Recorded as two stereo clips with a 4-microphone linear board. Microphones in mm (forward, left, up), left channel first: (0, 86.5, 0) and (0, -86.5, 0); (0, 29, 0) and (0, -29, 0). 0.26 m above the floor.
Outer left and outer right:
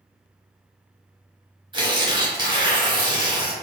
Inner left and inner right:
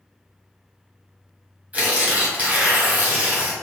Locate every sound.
1.7 s tearing paper: 25° right (ahead or behind), 1.3 m